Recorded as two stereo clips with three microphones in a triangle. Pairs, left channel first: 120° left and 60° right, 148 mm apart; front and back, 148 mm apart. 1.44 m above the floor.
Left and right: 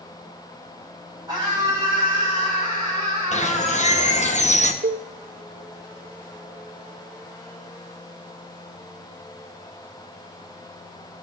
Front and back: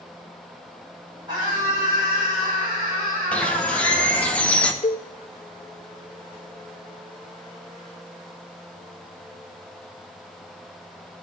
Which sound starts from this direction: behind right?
A scream, at 1.3 s.